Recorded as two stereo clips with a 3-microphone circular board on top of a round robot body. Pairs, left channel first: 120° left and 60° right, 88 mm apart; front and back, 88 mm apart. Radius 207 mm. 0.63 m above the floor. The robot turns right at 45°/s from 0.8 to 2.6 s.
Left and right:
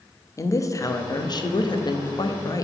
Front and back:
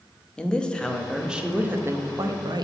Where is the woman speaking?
75° left, 1.0 m; by 2.6 s 160° left, 1.0 m.